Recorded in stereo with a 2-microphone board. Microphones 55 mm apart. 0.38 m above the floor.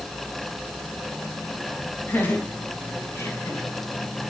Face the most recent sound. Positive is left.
turn(degrees=55)  # may be behind; listen again after turning